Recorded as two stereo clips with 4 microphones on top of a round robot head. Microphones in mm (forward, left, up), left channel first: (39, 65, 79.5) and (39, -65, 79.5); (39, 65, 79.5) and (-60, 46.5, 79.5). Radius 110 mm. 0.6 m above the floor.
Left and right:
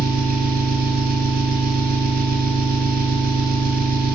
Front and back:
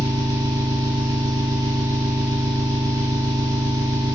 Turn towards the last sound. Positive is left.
turn(degrees=-105)